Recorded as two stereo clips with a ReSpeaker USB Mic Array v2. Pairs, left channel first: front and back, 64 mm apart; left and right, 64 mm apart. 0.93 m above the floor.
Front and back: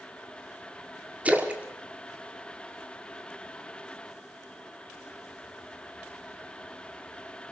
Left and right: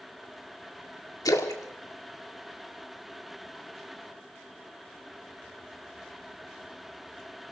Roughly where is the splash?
Left.